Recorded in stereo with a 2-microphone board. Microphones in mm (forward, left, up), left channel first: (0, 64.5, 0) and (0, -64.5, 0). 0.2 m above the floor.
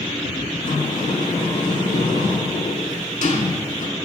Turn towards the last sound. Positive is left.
turn(degrees=70)  # may be behind; listen again after turning